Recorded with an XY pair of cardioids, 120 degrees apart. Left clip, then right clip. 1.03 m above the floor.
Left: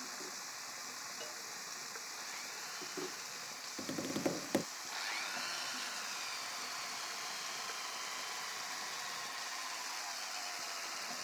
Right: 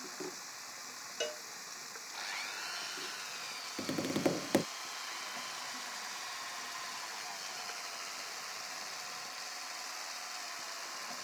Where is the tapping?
25° right.